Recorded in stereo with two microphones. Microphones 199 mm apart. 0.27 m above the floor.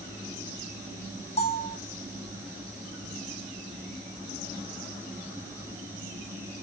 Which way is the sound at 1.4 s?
30° left (ahead or behind).